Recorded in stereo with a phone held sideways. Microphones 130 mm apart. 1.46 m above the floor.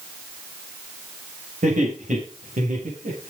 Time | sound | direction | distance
1.6 | laughter | 85° right | 7 m